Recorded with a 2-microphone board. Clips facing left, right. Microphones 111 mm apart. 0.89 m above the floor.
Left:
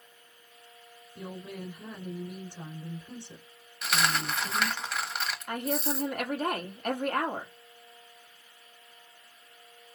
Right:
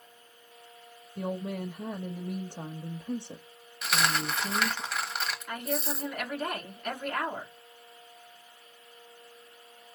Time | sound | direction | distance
1.2 | a woman speaking | 55° right (ahead or behind) | 0.9 m
3.8 | a dropped coin | centre (ahead or behind) | 1.0 m
5.5 | a woman speaking | 50° left (ahead or behind) | 2 m